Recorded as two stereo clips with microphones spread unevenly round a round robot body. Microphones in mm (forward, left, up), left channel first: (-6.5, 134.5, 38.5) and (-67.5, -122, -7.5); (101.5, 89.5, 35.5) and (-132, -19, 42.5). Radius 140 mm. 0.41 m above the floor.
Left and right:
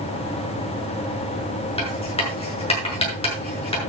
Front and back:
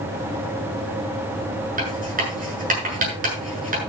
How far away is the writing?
About 8 m.